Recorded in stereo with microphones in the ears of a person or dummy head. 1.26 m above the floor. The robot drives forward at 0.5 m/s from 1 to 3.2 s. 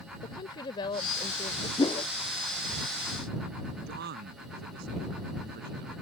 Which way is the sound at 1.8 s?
25° left (ahead or behind).